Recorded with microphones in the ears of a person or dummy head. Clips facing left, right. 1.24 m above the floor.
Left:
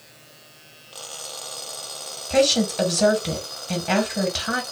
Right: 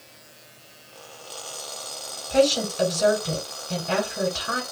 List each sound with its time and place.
2.3 s a woman speaking: 70° left (ahead or behind), 1.3 m